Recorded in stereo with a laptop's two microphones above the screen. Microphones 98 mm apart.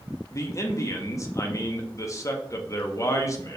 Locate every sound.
0.3 s a man speaking: 35° left (ahead or behind), 0.5 m